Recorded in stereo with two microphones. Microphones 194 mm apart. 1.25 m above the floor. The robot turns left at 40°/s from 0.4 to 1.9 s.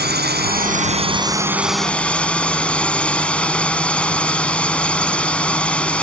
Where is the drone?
125° right; by 6.0 s 175° left.